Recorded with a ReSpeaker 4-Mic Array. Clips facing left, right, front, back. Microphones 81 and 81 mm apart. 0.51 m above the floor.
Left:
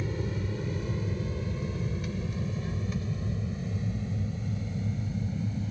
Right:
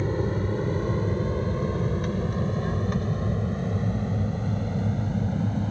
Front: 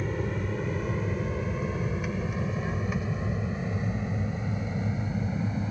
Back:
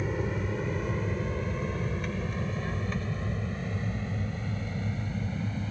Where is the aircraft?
95° right; by 5.7 s 70° right.